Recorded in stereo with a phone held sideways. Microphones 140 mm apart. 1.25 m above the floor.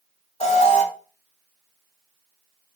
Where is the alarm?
45° left (ahead or behind), 6 m.